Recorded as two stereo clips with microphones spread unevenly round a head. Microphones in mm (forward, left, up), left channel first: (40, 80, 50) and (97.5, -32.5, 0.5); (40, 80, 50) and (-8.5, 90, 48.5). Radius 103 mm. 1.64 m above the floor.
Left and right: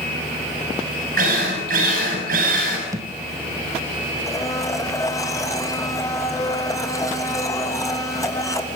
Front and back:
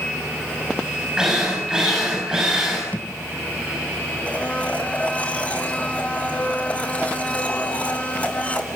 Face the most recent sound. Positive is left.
turn(degrees=55)